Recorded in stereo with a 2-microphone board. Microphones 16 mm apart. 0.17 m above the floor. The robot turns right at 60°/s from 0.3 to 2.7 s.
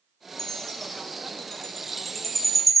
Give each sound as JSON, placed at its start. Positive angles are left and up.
{"t": 0.4, "sound": "a chime", "side_deg": 30, "distance_m": 0.8}